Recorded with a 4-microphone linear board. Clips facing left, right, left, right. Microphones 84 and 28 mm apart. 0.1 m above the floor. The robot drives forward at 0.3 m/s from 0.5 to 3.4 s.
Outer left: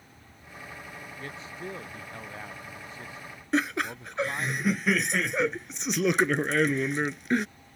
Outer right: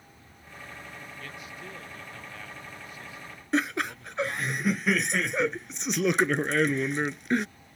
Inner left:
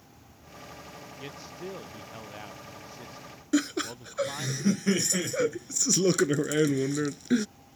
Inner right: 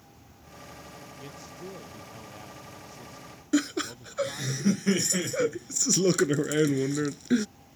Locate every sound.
1.2 s a man speaking: 30° left (ahead or behind)
3.5 s laughter: centre (ahead or behind)